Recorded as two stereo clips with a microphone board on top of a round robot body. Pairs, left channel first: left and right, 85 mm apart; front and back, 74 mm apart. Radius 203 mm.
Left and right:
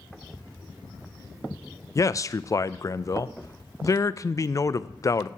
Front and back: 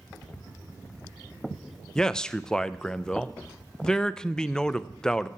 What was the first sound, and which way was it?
A man speaking, 75° left.